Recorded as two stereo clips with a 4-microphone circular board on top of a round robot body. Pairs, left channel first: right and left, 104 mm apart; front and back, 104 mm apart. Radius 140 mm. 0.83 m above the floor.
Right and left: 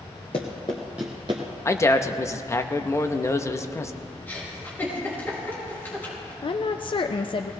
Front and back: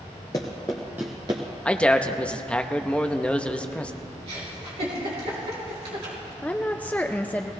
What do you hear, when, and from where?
0.3 s running footsteps: 55° right, 1.1 m; by 1.4 s 130° left, 1.0 m
1.6 s a man speaking: 65° right, 1.0 m
4.3 s a giggle: 160° right, 4.5 m
6.4 s a woman speaking: 70° right, 0.7 m